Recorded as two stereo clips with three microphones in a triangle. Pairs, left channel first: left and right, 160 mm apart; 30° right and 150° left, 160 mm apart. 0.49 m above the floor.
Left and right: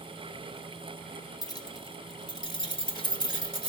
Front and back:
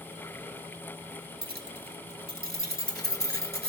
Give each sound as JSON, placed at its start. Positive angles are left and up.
{"t": 1.4, "sound": "keys jangling", "azimuth_deg": 155, "distance_m": 2.0}